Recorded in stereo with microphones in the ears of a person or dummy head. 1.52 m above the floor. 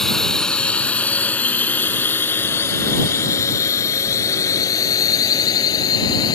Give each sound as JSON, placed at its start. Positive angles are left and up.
{"t": 0.0, "sound": "a drone", "side_deg": 0}